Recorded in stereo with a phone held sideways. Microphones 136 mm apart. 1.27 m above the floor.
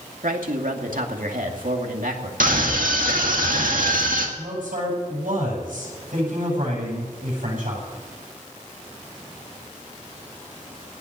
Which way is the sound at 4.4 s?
85° right.